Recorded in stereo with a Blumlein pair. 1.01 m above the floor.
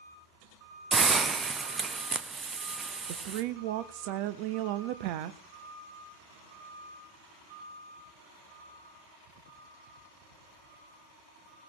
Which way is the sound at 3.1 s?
45° right.